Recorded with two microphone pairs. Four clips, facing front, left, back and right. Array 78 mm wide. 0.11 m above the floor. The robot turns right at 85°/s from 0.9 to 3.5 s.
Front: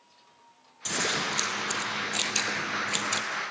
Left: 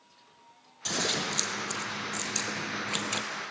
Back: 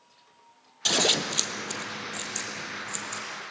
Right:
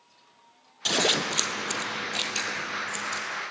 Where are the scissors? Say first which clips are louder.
Right 5 dB, back 2 dB; 155° right, 1.6 m; by 3.2 s 45° left, 1.6 m.